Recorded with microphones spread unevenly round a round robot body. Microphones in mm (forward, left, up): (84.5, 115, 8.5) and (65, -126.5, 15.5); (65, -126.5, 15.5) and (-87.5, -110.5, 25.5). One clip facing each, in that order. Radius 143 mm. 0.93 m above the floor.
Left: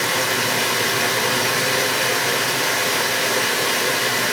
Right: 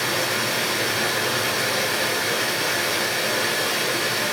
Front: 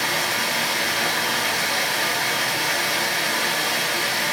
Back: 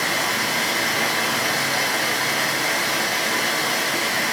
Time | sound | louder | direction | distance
0.0 | running water | left 2 dB, back 1 dB | 120° left | 1.3 m